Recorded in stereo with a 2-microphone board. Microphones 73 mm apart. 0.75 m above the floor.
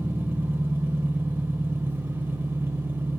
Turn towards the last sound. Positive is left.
turn(degrees=-30)  # may be behind; listen again after turning